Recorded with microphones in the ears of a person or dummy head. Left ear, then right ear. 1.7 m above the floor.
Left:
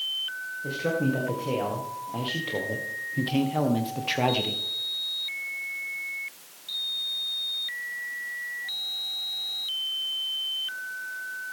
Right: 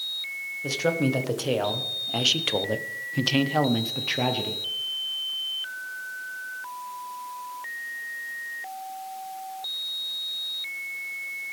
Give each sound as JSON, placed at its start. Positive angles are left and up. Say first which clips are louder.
{"t": 0.6, "sound": "a man speaking", "louder": "right 3 dB", "side_deg": -85, "distance_m": 2.0}